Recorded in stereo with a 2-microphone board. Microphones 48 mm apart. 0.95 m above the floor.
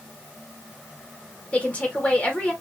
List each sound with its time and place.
1.5 s a woman speaking: 30° left (ahead or behind), 1.7 m